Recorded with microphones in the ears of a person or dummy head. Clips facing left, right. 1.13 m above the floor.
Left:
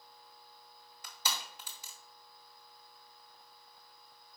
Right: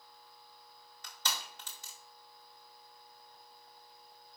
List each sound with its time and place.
1.0 s crushing: 5° left (ahead or behind), 1.0 m